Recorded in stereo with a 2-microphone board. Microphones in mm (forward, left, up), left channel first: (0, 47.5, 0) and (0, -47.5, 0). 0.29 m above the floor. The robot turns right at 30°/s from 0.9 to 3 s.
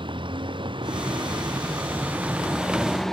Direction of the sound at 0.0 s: 60° right.